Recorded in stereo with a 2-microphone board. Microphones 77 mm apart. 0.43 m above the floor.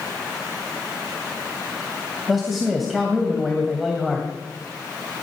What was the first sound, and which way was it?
A man speaking, centre (ahead or behind).